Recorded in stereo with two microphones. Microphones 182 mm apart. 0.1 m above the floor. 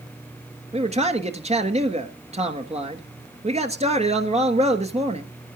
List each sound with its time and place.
0.7 s a man speaking: 35° right (ahead or behind), 1.4 m